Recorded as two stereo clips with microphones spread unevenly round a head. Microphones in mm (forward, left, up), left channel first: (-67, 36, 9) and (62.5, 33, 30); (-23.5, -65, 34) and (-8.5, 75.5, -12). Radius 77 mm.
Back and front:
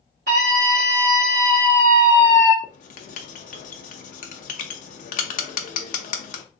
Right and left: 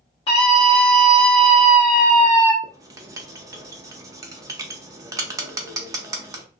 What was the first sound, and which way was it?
A scream, 35° right.